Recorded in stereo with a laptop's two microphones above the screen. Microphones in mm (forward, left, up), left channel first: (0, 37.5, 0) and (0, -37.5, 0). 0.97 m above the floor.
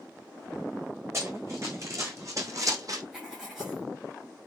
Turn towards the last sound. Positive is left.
turn(degrees=-5)  # may be behind; listen again after turning